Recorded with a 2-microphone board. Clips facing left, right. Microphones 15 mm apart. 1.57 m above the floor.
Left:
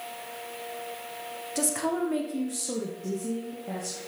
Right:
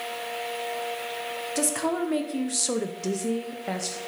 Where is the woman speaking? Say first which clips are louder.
Right 1 dB; 15° right (ahead or behind), 1.7 m; by 4.0 s 60° right (ahead or behind), 1.4 m.